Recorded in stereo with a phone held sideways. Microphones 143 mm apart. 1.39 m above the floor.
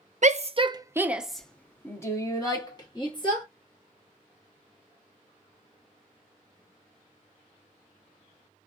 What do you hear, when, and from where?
0.2 s a shout: 55° right (ahead or behind), 0.6 m; by 3.5 s 35° left (ahead or behind), 1.7 m